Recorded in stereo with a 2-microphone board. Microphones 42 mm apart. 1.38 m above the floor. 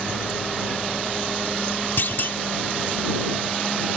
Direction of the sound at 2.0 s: 65° left (ahead or behind).